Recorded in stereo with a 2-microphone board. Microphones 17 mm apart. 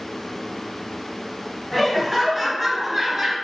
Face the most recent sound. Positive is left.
turn(degrees=-35)  # may be behind; listen again after turning